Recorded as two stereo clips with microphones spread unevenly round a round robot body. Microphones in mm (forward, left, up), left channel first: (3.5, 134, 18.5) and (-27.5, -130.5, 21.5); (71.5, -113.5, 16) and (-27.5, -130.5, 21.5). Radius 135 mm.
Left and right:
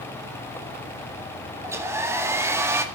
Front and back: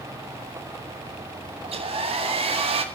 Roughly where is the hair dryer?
Behind.